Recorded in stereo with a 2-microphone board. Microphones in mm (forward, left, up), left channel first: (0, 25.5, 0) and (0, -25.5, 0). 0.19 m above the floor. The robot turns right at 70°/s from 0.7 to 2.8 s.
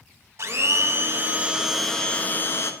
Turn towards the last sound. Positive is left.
turn(degrees=70)